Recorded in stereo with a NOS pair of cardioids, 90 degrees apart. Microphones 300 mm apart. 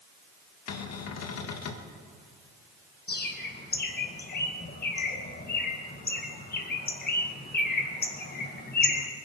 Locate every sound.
0.7 s a cupboard door: 60° left, 1.8 m
3.1 s a bird: 30° left, 2 m